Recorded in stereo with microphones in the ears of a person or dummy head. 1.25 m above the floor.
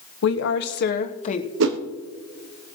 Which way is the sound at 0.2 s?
80° left.